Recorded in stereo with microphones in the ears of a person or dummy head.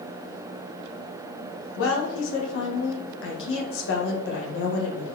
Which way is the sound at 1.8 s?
60° left (ahead or behind).